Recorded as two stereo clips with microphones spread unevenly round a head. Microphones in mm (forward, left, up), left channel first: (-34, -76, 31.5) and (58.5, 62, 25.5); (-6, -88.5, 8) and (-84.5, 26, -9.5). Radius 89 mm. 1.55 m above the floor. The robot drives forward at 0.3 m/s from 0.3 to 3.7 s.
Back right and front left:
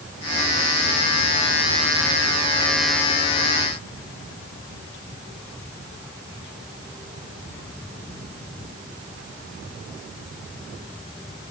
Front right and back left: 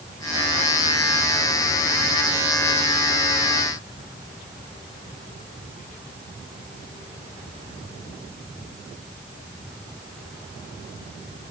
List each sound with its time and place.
Only background noise.